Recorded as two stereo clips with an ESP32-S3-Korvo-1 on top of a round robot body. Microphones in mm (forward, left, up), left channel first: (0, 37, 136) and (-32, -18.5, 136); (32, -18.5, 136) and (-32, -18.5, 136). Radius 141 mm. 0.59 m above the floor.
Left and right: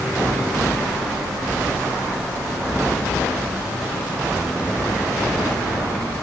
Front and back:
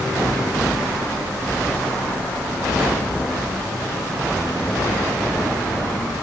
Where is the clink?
No clink in this recording.